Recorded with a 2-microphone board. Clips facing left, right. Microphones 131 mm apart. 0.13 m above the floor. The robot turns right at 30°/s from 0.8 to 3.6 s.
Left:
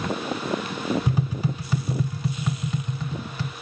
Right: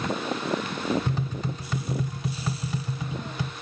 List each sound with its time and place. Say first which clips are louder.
1.1 s tapping: left 4 dB; 15° left (ahead or behind), 1.1 m; by 3.5 s 15° right (ahead or behind), 1.1 m